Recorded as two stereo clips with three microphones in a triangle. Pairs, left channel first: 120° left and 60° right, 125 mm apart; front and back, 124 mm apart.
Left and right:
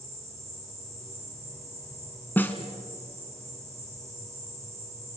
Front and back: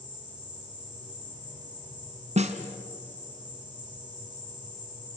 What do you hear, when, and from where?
0.0 s an insect: 125° right, 7 m
2.4 s a snare drum: 165° right, 1.7 m